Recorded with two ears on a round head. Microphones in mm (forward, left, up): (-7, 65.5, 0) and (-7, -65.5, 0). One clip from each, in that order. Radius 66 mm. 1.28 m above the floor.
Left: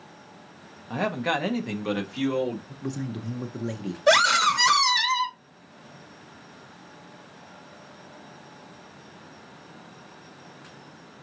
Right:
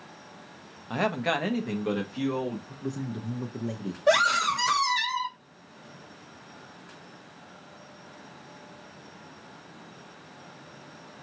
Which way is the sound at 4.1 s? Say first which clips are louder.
Left 3 dB; 50° left (ahead or behind).